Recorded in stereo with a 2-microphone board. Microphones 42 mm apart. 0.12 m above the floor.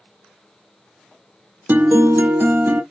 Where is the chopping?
I don't hear chopping.